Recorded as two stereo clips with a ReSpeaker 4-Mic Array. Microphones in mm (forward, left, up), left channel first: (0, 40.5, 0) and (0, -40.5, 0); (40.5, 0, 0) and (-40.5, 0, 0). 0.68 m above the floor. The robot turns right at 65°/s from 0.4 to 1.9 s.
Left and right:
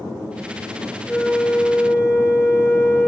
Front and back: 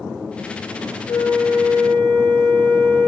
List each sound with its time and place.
1.1 s a flute: 10° right, 2.5 m; by 3.1 s 40° left, 2.5 m